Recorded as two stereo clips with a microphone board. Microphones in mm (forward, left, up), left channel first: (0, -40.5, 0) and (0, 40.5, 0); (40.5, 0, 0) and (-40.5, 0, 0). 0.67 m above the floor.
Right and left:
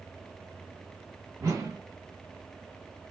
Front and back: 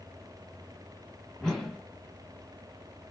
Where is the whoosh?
85° left, 1.3 m.